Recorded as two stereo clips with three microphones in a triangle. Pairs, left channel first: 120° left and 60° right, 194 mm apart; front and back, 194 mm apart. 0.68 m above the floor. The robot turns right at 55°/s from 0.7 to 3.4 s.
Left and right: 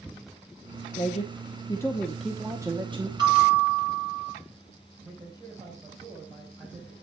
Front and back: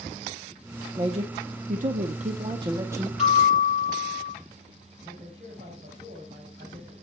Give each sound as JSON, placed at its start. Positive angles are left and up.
{"t": 0.9, "sound": "a man speaking", "azimuth_deg": 140, "distance_m": 0.8}
{"t": 3.2, "sound": "a bell", "azimuth_deg": -130, "distance_m": 6.0}
{"t": 5.0, "sound": "a man speaking", "azimuth_deg": -130, "distance_m": 4.0}